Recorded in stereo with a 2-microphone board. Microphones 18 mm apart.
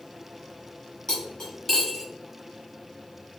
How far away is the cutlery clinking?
About 1.6 m.